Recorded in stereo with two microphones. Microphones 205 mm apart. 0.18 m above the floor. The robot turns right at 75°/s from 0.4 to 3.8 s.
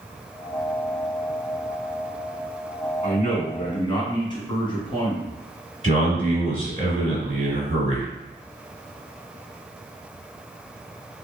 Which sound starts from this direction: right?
A man speaking, at 5.8 s.